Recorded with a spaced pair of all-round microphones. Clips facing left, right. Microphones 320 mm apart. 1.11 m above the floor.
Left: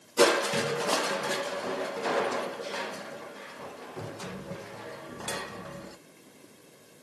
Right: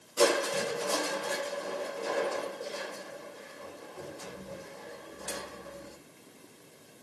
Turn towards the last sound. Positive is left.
turn(degrees=80)